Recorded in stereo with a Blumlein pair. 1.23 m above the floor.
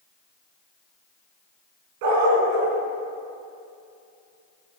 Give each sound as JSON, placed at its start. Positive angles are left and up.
{"t": 2.0, "sound": "a dog barking", "azimuth_deg": -45, "distance_m": 4.0}